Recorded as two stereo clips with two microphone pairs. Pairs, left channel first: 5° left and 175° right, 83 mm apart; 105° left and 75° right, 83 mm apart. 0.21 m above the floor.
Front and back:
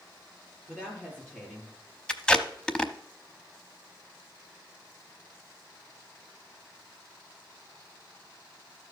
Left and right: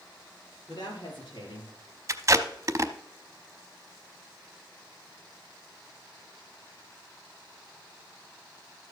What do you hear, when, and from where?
0.7 s a woman speaking: 80° left, 5.5 m
2.1 s tape being pulled: 65° right, 0.7 m